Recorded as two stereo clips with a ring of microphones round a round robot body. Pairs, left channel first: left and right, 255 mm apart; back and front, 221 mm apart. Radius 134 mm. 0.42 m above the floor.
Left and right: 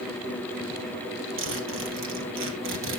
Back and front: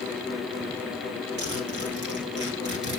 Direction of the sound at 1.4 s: 50° right.